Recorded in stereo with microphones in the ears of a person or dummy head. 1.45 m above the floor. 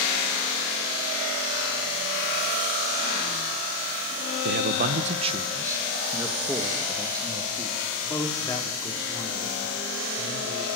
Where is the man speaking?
60° right (ahead or behind), 1.3 m; by 10.7 s 25° left (ahead or behind), 6 m.